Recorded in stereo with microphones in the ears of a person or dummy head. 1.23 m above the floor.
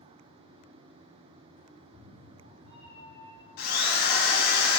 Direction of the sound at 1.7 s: 30° left (ahead or behind).